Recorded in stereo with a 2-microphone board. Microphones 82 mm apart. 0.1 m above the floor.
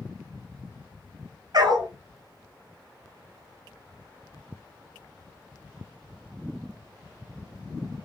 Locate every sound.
1.5 s a dog barking: 55° right (ahead or behind), 0.7 m